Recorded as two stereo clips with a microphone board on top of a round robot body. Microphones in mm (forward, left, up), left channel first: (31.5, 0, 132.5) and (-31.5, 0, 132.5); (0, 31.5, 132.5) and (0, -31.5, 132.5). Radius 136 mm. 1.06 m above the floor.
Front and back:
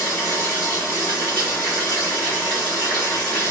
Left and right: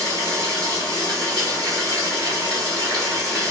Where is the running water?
65° right, 2.5 m.